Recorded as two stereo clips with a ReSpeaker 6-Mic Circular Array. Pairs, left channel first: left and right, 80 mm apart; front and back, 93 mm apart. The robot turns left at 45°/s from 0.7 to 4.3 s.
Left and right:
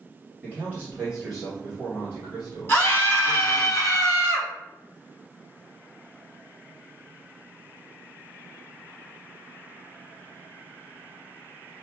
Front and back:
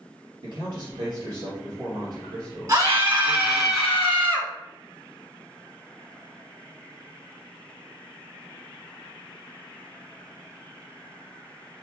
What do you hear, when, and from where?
0.4 s a man speaking: 155° right, 2.5 m; by 3.7 s 70° left, 2.5 m
2.7 s a scream: 135° left, 1.6 m; by 4.5 s 65° left, 1.6 m